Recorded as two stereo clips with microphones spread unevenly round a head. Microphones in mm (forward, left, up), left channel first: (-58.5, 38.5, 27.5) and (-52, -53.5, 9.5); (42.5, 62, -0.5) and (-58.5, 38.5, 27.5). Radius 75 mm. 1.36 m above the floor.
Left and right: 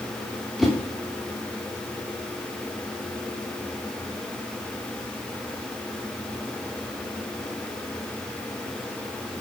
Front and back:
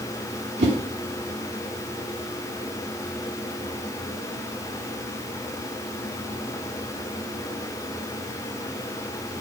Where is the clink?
I don't hear a clink.